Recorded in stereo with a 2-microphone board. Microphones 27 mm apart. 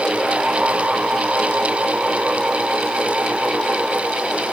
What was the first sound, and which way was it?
Only background noise.